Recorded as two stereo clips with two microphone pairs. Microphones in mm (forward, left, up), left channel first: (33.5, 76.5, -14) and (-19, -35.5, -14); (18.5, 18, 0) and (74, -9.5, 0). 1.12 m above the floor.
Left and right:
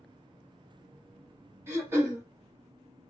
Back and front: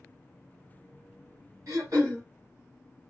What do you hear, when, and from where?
1.7 s throat clearing: 45° right, 1.2 m